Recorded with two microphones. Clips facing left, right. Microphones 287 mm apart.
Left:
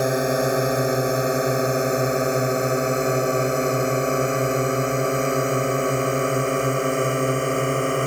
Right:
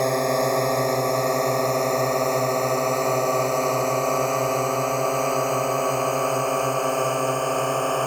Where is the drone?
10° left (ahead or behind); by 8.1 s 25° left (ahead or behind).